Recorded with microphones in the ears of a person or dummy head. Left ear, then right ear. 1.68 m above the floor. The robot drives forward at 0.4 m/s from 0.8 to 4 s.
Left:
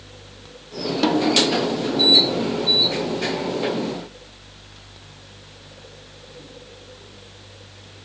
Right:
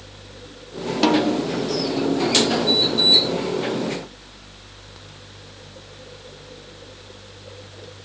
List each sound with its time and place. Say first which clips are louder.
1.0 s a snare drum: left 1 dB; 10° right (ahead or behind), 0.8 m